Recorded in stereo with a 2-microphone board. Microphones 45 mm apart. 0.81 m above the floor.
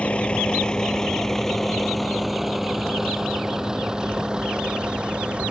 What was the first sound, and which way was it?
A vehicle, 30° left (ahead or behind).